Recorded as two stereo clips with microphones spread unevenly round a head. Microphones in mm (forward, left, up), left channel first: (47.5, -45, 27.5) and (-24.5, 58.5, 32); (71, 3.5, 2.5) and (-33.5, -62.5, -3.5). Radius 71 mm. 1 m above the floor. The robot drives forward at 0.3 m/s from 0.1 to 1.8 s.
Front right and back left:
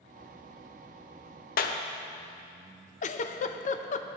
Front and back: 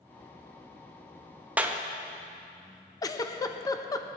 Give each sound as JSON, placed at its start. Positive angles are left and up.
{"t": 1.6, "sound": "a clap", "azimuth_deg": -70, "distance_m": 0.8}
{"t": 3.0, "sound": "a giggle", "azimuth_deg": -30, "distance_m": 0.6}